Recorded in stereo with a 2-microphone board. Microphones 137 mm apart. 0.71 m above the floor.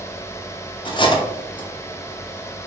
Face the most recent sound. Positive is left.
turn(degrees=35)  # may be behind; listen again after turning